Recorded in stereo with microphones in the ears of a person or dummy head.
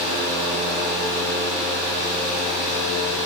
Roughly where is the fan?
Right.